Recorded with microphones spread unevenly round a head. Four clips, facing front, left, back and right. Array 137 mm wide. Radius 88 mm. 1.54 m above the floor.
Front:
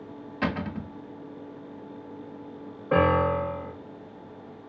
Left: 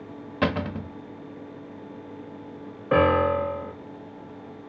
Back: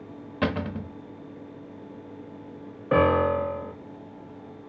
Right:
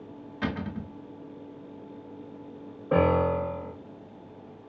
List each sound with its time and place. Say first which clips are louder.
0.4 s a cupboard door: left 6 dB, back 2 dB; 115° left, 0.6 m
2.9 s a piano: left 3 dB, back 1 dB; 155° right, 0.7 m